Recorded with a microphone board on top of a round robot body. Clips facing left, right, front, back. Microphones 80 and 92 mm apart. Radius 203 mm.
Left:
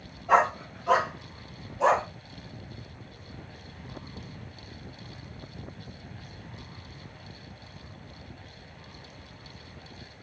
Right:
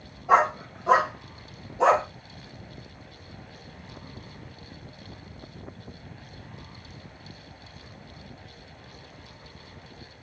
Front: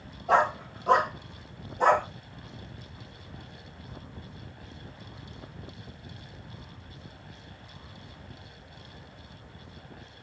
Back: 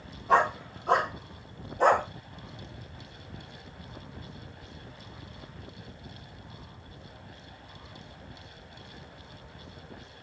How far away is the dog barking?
About 1.8 m.